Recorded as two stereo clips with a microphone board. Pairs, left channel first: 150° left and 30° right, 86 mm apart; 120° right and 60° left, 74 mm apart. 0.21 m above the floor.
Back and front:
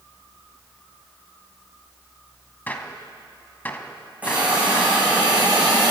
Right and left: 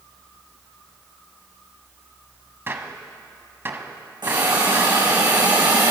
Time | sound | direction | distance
2.7 | a gunshot | 95° left | 0.9 m
4.2 | a hiss | 45° left | 4.5 m